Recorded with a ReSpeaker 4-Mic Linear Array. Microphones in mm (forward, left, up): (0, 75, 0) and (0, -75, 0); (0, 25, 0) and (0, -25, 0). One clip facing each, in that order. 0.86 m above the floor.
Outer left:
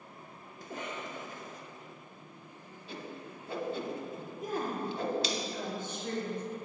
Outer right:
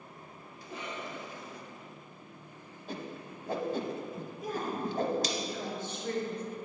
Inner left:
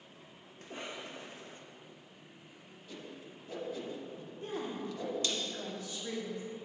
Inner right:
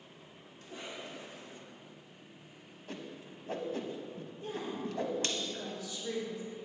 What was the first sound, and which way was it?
A cough, 45° left (ahead or behind).